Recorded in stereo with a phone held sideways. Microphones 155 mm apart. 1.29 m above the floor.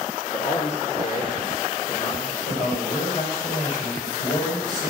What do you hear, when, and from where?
0.3 s a man speaking: 45° left (ahead or behind), 1.8 m
2.5 s a man speaking: 55° left (ahead or behind), 5.5 m